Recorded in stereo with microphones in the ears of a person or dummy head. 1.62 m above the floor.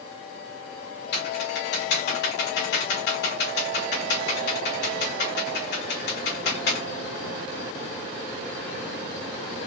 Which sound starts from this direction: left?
Typing on a keyboard, at 1.1 s.